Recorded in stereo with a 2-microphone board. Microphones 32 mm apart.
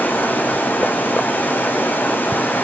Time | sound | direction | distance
0.0 | running water | 85° left | 3 m